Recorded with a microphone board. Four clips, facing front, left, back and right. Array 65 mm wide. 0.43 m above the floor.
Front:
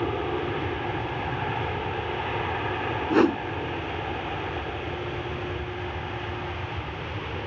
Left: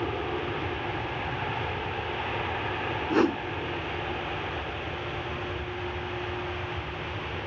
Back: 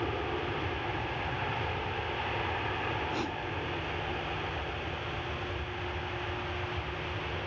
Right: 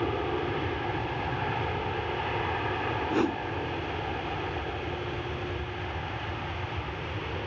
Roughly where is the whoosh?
Ahead left.